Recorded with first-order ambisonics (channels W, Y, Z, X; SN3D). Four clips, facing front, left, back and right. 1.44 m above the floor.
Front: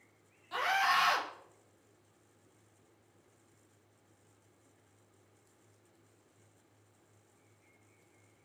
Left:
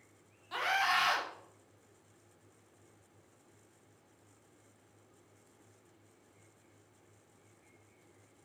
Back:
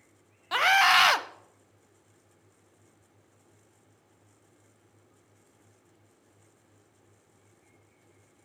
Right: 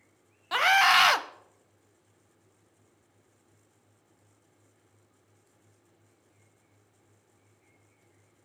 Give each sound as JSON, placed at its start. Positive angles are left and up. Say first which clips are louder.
{"t": 0.5, "sound": "a scream", "louder": "right 10 dB, back 9 dB", "azimuth_deg": -135, "distance_m": 0.5}